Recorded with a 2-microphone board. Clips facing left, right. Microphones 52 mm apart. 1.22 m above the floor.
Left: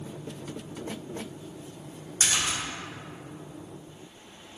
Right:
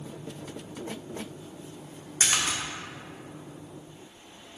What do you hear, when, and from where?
2.2 s a splash: 45° right (ahead or behind), 1.3 m